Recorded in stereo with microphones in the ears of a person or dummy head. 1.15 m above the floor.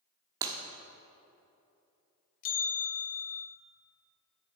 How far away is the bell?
About 1.1 m.